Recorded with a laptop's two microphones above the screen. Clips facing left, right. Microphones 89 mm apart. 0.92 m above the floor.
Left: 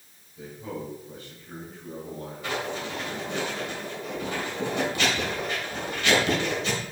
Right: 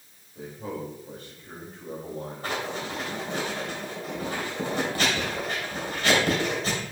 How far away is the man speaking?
About 5 m.